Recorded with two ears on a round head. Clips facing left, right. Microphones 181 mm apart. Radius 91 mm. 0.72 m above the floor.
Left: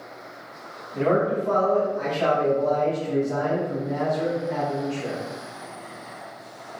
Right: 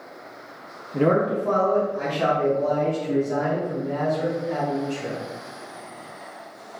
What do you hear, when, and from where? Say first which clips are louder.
0.9 s a man speaking: right 1 dB; 50° right (ahead or behind), 0.6 m; by 5.2 s 75° right (ahead or behind), 3 m